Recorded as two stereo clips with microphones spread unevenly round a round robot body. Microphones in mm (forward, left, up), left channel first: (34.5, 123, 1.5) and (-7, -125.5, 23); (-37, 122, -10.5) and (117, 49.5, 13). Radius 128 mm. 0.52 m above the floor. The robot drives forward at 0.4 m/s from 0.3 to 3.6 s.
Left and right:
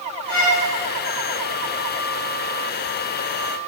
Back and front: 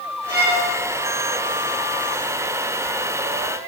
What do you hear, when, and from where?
0.3 s a violin: 45° left, 1.9 m; by 0.6 s 50° left, 1.8 m